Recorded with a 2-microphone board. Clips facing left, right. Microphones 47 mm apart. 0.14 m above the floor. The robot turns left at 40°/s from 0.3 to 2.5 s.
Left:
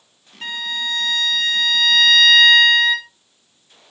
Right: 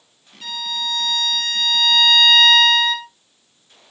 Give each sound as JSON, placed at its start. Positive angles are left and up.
{"t": 0.4, "sound": "a violin", "azimuth_deg": 90, "distance_m": 1.2}